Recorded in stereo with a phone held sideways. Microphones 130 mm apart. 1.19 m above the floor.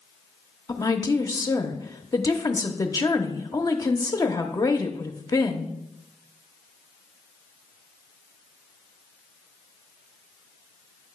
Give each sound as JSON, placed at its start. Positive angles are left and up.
{"t": 0.7, "sound": "a woman speaking", "side_deg": 25, "distance_m": 0.8}